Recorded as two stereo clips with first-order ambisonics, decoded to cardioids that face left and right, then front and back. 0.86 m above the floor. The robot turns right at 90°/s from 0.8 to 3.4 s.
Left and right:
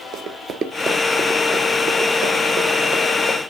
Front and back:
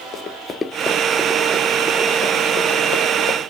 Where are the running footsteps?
55° right, 1.1 m; by 3.5 s 20° left, 2 m.